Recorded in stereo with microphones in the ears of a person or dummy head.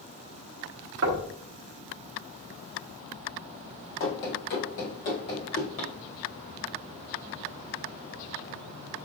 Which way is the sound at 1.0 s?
65° right (ahead or behind).